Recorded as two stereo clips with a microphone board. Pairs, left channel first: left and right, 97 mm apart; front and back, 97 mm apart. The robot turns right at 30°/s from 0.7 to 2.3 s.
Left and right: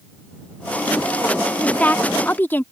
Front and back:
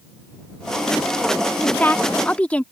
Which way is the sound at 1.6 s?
35° left.